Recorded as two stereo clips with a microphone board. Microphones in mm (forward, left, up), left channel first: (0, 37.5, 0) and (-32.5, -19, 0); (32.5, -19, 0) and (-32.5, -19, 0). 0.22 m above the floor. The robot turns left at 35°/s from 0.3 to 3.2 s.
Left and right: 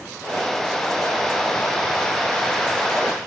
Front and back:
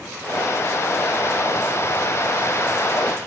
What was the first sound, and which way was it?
Only background noise.